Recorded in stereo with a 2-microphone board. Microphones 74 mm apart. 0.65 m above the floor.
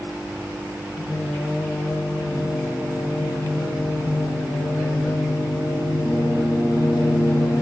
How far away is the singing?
About 0.8 m.